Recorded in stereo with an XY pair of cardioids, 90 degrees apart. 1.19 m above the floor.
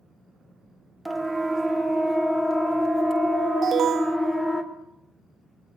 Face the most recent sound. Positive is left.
turn(degrees=-55)